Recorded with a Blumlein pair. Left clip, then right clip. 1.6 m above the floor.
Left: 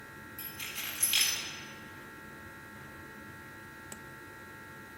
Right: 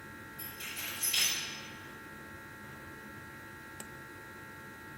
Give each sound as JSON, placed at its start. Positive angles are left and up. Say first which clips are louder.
{"t": 0.4, "sound": "keys jangling", "louder": "left 2 dB", "azimuth_deg": 55, "distance_m": 3.5}